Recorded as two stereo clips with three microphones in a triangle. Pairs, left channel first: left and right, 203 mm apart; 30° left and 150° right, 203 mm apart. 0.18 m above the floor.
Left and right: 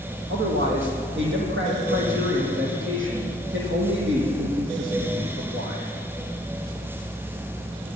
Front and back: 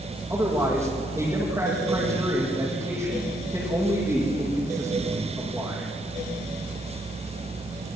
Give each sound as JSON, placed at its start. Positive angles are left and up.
{"t": 0.3, "sound": "a man speaking", "azimuth_deg": -75, "distance_m": 7.5}